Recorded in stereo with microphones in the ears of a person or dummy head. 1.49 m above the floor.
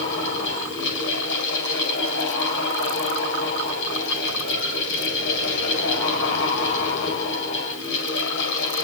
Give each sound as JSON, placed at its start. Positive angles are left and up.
{"t": 0.0, "sound": "a fan", "side_deg": 75, "distance_m": 8.5}